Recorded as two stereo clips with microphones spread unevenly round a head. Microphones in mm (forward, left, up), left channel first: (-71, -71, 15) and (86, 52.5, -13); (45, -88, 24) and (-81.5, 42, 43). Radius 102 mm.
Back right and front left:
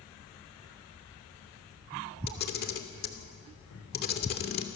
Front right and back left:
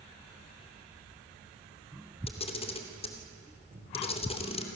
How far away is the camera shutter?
About 2.5 m.